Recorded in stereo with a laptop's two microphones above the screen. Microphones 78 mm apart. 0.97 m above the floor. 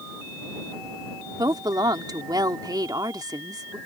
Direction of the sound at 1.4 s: 60° right (ahead or behind).